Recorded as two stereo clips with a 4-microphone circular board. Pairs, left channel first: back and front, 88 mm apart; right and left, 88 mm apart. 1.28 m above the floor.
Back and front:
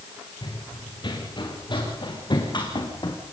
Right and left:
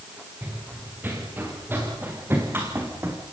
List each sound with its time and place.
0.4 s running footsteps: 155° left, 7 m; by 3.2 s 150° left, 4.5 m